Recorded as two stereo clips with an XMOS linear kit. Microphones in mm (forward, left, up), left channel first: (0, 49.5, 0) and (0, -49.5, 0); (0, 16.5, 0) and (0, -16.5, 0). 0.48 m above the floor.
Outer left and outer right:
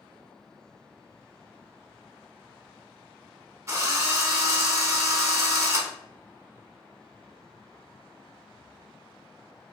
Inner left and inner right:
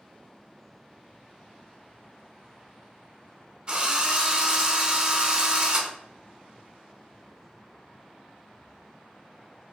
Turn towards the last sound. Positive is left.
turn(degrees=-30)  # may be behind; listen again after turning